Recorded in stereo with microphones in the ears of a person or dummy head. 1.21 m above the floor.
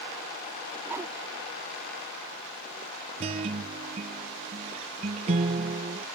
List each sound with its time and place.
0.8 s a whoosh: 15° right (ahead or behind)
3.2 s a guitar: 40° right (ahead or behind)